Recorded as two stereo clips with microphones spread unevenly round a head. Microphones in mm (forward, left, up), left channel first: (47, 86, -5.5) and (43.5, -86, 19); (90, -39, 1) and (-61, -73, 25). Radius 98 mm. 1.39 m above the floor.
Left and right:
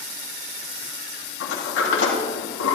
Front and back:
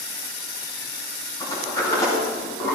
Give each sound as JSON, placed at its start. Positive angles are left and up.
{"t": 1.4, "sound": "a sliding door", "azimuth_deg": 90, "distance_m": 3.0}